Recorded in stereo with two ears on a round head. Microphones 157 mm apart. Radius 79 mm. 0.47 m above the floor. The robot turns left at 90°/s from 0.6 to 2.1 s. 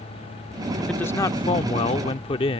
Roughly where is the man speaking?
Behind.